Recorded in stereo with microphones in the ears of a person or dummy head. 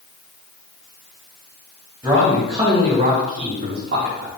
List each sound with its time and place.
2.0 s a man speaking: 5° right (ahead or behind), 3 m; by 4.3 s 60° right (ahead or behind), 1.4 m